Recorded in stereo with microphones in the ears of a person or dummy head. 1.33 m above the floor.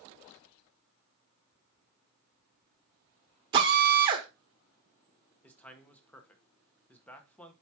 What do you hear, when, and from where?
3.5 s a drill: 30° right (ahead or behind), 1.3 m
5.4 s a man speaking: 15° left (ahead or behind), 1.1 m